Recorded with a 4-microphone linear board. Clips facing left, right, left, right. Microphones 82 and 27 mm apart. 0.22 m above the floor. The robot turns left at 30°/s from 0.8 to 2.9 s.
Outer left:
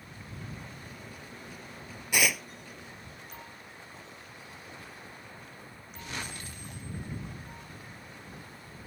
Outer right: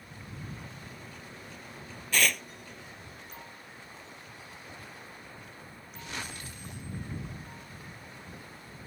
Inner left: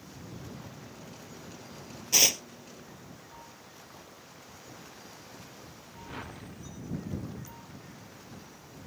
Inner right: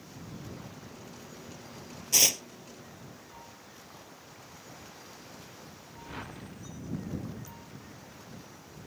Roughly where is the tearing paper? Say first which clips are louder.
Even, inner left 1 dB; centre.